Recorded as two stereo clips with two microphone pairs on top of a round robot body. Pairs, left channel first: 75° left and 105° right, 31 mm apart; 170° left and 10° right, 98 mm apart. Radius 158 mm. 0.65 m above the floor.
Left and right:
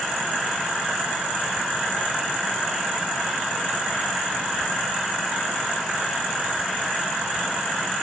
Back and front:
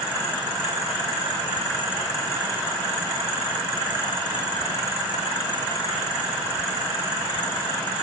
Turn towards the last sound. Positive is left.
No sound to turn to.